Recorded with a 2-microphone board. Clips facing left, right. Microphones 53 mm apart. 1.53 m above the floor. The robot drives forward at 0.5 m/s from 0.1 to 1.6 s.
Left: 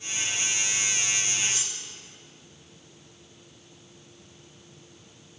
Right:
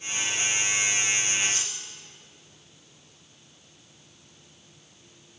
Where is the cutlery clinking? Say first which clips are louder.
Right 2 dB; 40° right (ahead or behind), 5.5 m.